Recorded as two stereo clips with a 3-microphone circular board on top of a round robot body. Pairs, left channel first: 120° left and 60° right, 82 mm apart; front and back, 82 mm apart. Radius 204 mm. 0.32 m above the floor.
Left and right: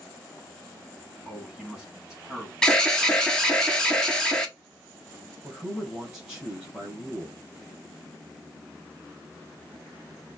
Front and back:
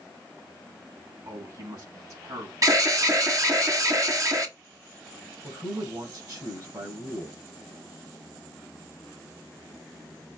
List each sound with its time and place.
1.2 s a man speaking: 140° right, 5.5 m
2.6 s an alarm: 165° right, 2.5 m
5.4 s a man speaking: 140° right, 5 m